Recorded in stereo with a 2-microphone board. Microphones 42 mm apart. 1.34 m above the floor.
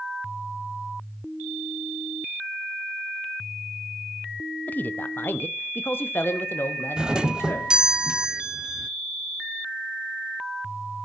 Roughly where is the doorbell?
Centre.